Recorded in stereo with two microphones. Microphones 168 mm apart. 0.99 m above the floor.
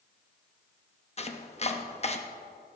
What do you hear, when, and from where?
1.2 s chopping: 40° left (ahead or behind), 0.8 m